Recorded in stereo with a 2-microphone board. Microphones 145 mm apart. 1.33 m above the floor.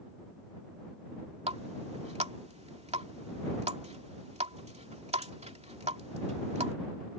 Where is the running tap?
50° right (ahead or behind).